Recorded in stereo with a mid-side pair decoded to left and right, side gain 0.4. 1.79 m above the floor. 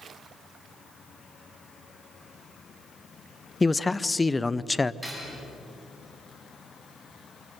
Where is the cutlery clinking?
15° left, 8.5 m.